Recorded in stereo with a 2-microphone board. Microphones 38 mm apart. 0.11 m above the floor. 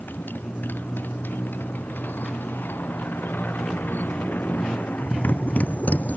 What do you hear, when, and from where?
0.0 s a motorcycle: 60° left (ahead or behind); by 6.2 s 45° left (ahead or behind)